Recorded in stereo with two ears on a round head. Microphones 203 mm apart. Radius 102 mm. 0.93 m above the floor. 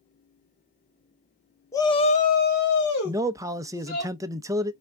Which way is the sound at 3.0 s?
15° right (ahead or behind).